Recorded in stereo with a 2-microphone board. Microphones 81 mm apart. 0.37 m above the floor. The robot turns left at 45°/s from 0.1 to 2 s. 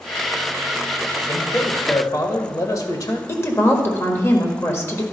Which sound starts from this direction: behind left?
A man speaking, at 1.3 s.